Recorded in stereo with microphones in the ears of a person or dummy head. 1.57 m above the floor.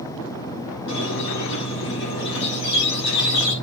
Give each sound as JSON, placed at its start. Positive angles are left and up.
{"t": 0.9, "sound": "a squeak", "side_deg": 65, "distance_m": 6.5}